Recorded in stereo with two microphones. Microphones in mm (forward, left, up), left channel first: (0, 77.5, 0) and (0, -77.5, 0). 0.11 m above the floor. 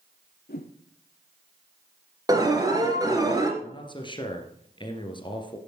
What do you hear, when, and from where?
0.5 s a whoosh: 85° left, 1.4 m
2.3 s an alarm: 25° right (ahead or behind), 2 m
3.6 s a man speaking: 30° left (ahead or behind), 2 m